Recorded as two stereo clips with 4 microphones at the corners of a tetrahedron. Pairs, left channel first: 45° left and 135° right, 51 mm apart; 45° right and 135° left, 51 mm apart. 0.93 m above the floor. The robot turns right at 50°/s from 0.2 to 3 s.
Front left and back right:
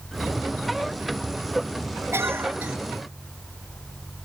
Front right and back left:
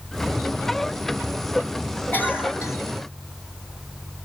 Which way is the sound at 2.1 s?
100° right.